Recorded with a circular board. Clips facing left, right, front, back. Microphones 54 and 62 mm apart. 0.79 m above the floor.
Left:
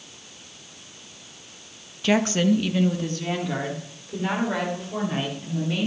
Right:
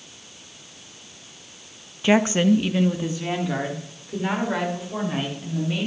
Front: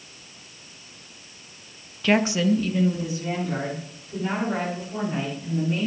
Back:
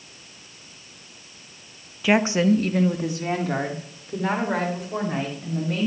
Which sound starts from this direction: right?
A woman speaking, at 2.0 s.